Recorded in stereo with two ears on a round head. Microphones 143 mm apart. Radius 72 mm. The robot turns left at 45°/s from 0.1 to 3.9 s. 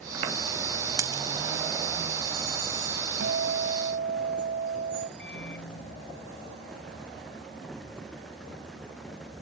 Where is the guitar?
90° right; by 5.1 s 125° right.